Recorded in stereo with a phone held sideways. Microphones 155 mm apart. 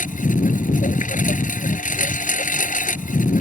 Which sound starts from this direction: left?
A lawn mower, at 0.0 s.